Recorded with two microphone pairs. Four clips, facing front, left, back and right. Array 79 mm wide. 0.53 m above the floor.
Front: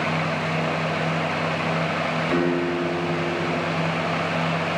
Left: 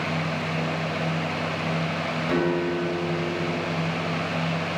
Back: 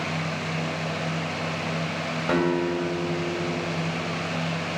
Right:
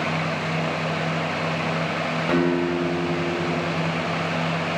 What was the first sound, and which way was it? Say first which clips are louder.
A guitar: right 3 dB, back 1 dB; 160° right.